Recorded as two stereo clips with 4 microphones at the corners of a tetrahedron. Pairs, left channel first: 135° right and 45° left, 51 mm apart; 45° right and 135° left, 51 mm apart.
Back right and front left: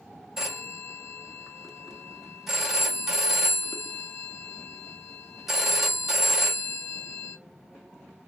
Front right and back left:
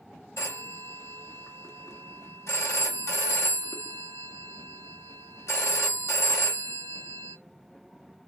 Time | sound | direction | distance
0.4 | a phone ringing | 40° right | 1.0 m